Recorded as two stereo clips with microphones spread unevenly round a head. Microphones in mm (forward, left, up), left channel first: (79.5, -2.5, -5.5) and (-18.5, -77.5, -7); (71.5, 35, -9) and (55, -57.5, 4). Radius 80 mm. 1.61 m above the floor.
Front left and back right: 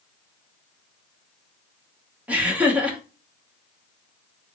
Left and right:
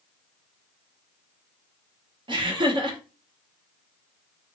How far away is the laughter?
About 1.1 m.